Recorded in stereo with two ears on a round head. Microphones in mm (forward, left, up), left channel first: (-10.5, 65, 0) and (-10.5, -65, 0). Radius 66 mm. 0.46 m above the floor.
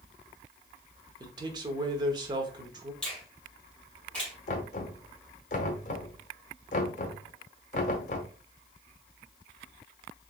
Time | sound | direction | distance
1.2 | a man speaking | 30° right (ahead or behind) | 1.0 m
3.0 | a finger snap | 5° left (ahead or behind) | 2 m
4.5 | knocking | 55° left (ahead or behind) | 1.1 m